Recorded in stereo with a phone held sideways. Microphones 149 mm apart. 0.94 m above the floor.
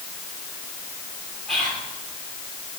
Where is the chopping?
I don't hear chopping.